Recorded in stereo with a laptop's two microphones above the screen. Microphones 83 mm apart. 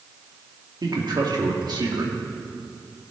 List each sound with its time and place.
0.8 s a man speaking: 60° right (ahead or behind), 2 m